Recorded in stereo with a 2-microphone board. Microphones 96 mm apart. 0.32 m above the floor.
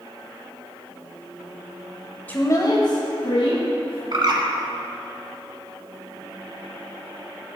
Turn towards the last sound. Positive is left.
turn(degrees=-50)  # may be behind; listen again after turning